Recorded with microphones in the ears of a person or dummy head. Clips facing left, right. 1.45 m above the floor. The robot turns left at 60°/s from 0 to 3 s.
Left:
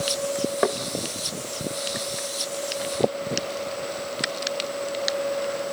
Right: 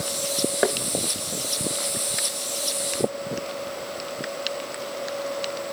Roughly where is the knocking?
Centre.